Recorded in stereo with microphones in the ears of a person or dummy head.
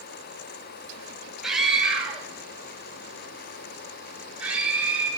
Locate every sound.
1.4 s a scream: centre (ahead or behind), 2.5 m; by 5.1 s 5° right (ahead or behind), 5 m